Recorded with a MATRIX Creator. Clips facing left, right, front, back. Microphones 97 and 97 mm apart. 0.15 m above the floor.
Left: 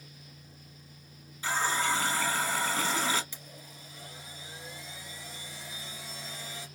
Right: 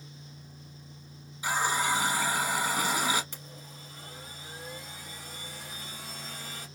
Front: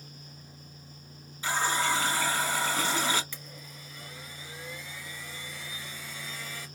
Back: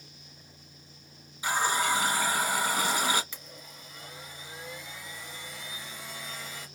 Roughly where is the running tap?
Behind right.